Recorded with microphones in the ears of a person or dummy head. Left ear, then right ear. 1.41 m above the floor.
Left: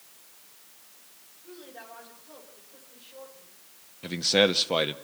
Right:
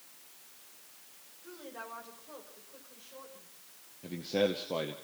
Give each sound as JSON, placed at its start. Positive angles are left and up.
{"t": 1.4, "sound": "a woman speaking", "side_deg": -40, "distance_m": 6.0}
{"t": 4.0, "sound": "a man speaking", "side_deg": 60, "distance_m": 0.9}